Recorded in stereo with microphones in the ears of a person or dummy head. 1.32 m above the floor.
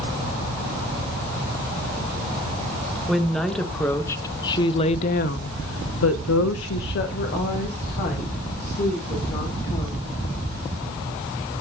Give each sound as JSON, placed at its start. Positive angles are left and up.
{"t": 3.1, "sound": "a woman speaking", "side_deg": 0, "distance_m": 1.3}